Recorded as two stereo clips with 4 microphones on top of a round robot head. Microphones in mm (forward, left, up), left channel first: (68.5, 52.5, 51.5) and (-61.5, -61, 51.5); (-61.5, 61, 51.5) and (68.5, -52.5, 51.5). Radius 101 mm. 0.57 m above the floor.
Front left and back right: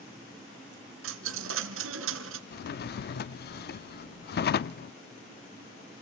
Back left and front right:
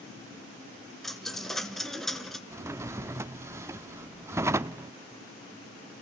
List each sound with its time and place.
1.0 s a dropped coin: 135° right, 1.6 m
2.5 s a drawer: 30° left, 0.6 m